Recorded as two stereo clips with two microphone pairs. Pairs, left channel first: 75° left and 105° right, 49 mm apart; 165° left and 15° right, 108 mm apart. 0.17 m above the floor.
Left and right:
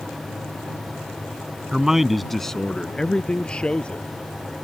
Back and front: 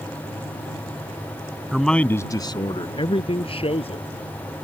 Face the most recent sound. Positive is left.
turn(degrees=145)